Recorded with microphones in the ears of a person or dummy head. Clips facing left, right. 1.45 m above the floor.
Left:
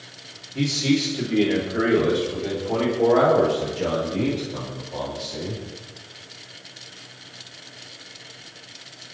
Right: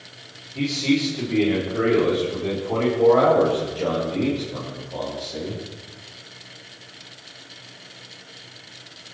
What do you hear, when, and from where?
0.6 s a man speaking: 15° left (ahead or behind), 3.5 m; by 5.6 s centre (ahead or behind), 6.5 m